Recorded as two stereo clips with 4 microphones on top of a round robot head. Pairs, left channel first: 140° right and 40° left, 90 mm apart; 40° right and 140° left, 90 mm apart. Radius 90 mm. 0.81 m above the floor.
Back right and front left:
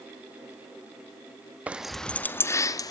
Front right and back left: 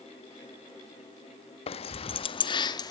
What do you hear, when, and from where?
1.7 s keys jangling: 35° right, 0.7 m; by 2.9 s 90° right, 1.1 m